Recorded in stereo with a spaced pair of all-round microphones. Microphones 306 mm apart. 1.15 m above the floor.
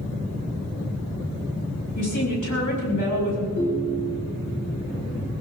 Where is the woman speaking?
75° left (ahead or behind), 6 m.